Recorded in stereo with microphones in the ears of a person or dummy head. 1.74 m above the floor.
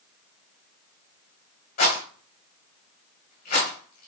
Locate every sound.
1.8 s a rattle: 50° left (ahead or behind), 1.7 m